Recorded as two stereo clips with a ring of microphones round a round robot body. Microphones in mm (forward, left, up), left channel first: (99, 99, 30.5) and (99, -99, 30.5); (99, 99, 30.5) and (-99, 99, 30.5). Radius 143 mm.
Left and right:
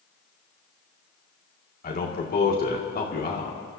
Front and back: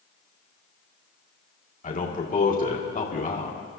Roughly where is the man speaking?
Ahead left.